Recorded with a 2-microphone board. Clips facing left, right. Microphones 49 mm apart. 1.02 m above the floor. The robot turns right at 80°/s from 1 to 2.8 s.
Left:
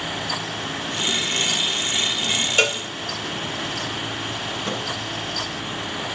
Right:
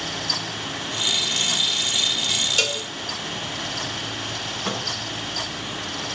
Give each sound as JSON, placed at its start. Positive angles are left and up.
{"t": 2.6, "sound": "a cowbell", "side_deg": 30, "distance_m": 0.8}
{"t": 4.7, "sound": "a microwave", "side_deg": -80, "distance_m": 8.5}